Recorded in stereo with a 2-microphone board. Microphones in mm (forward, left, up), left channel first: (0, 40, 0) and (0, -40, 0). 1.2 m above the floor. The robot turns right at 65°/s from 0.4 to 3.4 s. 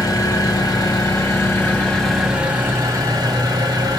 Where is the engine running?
70° left, 1.6 m; by 4.0 s 95° right, 1.6 m.